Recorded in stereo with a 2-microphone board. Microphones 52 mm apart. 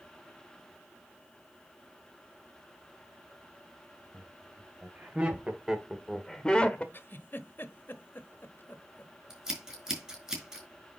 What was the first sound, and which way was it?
Laughter, 30° right (ahead or behind).